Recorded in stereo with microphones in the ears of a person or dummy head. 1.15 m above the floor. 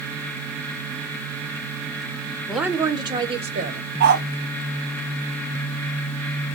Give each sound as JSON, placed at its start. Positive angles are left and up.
{"t": 2.5, "sound": "a woman speaking", "side_deg": -5, "distance_m": 0.8}
{"t": 4.0, "sound": "a dog barking", "side_deg": -50, "distance_m": 1.6}